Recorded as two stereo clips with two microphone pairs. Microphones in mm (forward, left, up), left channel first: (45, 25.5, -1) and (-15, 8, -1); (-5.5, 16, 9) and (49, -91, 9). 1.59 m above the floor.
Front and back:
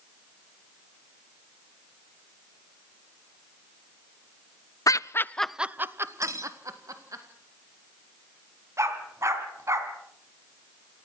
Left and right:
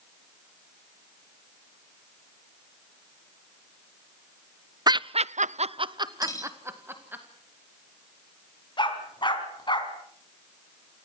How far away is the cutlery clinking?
About 1.7 m.